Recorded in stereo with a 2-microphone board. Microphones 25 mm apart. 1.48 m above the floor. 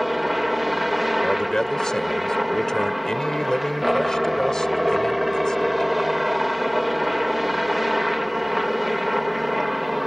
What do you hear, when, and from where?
0.0 s a helicopter: 5° right (ahead or behind)
1.2 s a man speaking: 25° left (ahead or behind)